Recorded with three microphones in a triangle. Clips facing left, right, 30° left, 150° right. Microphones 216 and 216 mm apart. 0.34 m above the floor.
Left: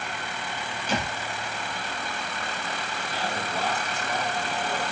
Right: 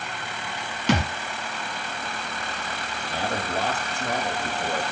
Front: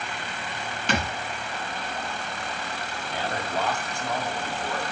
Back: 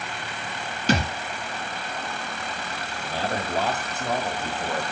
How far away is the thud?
About 2 m.